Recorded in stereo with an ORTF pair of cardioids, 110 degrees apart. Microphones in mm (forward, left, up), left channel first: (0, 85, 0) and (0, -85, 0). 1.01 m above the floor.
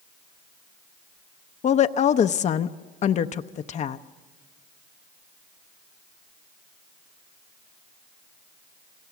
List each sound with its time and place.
1.6 s a woman speaking: 45° left, 0.7 m